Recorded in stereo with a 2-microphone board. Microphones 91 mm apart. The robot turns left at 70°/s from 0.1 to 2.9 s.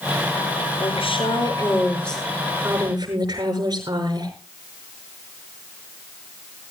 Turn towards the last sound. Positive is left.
turn(degrees=-50)